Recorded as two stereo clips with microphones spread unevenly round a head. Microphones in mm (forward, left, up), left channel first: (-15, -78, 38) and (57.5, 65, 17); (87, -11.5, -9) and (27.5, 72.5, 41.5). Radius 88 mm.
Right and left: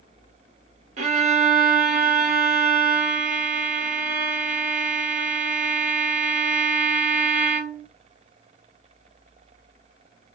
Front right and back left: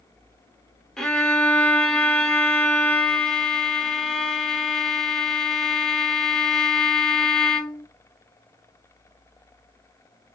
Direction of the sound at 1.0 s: 80° left.